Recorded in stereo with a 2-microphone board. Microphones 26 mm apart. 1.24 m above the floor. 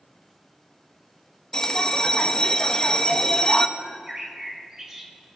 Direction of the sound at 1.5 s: 25° left (ahead or behind).